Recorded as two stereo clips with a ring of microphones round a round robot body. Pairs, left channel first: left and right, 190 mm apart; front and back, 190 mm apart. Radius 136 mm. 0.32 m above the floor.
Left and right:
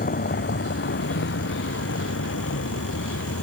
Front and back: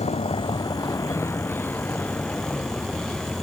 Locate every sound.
0.0 s a vehicle: 55° left; by 3.4 s 85° left